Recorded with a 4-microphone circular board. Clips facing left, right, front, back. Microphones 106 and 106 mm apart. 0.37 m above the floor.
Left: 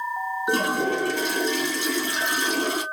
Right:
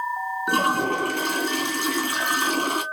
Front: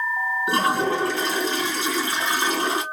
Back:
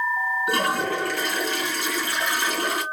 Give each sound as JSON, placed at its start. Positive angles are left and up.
{"t": 0.5, "sound": "a toilet flushing", "azimuth_deg": -65, "distance_m": 2.5}